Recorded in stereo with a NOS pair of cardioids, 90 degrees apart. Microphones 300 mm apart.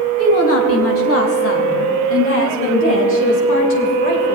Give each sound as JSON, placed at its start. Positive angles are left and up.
{"t": 0.2, "sound": "a woman speaking", "azimuth_deg": 50, "distance_m": 3.0}